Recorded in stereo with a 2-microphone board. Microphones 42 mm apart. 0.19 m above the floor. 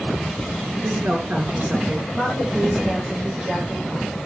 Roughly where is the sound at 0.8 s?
Right.